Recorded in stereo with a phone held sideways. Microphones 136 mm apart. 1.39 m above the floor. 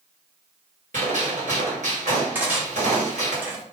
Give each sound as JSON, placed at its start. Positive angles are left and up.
{"t": 0.9, "sound": "a gunshot", "side_deg": -60, "distance_m": 1.9}
{"t": 2.4, "sound": "cutlery clinking", "side_deg": -15, "distance_m": 1.0}